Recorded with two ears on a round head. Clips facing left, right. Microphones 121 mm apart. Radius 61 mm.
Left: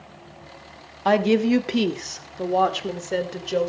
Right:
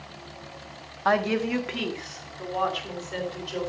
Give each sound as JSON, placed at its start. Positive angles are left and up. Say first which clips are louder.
{"t": 1.1, "sound": "a woman speaking", "louder": "left 5 dB", "side_deg": 25, "distance_m": 1.2}